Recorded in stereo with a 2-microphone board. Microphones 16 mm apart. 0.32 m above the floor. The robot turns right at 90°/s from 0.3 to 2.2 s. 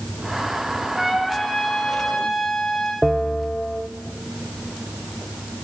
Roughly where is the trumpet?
Ahead.